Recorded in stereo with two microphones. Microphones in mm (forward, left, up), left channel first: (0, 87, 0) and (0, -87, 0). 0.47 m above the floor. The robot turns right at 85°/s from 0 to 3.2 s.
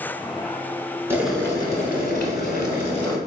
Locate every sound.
1.1 s boiling: 15° right, 0.9 m; by 3.2 s 160° left, 0.9 m